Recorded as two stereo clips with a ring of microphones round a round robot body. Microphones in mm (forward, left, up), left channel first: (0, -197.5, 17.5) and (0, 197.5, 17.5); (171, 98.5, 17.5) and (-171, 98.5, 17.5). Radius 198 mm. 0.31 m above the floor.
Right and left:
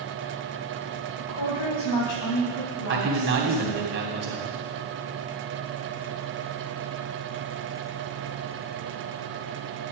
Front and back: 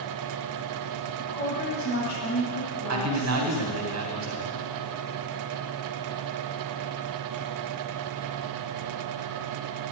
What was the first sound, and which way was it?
A woman speaking, 75° right.